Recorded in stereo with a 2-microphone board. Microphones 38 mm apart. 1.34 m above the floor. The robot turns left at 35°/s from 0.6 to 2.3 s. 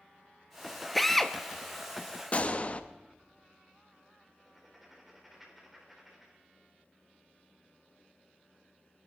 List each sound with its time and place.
0.9 s a drill: centre (ahead or behind), 0.7 m; by 1.4 s 5° left (ahead or behind), 0.7 m
2.3 s a gunshot: 35° left (ahead or behind), 0.8 m
4.4 s writing: 5° right (ahead or behind), 4 m